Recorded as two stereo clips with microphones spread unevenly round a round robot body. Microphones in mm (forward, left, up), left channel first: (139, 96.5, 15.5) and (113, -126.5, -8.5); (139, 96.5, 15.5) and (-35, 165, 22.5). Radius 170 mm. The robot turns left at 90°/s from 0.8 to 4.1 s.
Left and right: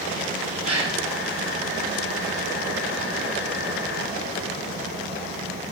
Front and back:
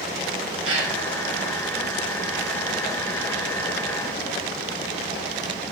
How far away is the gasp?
About 1.0 m.